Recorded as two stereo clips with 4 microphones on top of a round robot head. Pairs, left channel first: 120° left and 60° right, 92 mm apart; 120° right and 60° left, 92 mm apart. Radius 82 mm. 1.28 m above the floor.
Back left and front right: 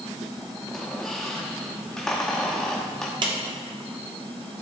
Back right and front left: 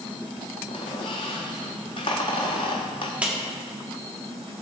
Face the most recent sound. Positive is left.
turn(degrees=-20)